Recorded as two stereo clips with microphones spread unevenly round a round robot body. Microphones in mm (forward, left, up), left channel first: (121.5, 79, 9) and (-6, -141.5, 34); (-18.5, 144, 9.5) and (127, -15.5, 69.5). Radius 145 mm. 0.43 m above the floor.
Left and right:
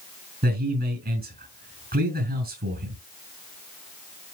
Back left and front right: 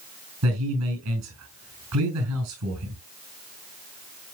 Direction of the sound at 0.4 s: 65° right.